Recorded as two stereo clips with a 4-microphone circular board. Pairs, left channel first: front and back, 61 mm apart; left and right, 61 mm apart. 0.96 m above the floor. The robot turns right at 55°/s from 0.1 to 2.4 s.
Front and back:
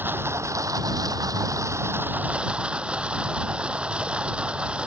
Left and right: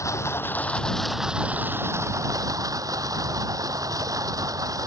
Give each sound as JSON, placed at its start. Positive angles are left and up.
{"t": 0.0, "sound": "running water", "azimuth_deg": 125}